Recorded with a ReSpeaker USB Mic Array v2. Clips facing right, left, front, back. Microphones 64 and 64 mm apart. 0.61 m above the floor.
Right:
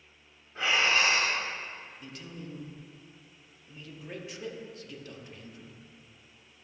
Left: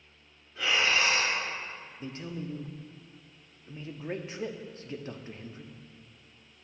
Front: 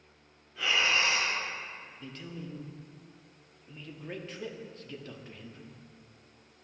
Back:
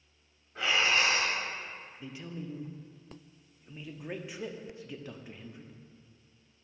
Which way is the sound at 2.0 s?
110° left.